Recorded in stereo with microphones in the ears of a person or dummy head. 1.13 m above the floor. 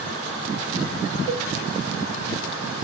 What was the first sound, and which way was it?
A cowbell, 25° right (ahead or behind).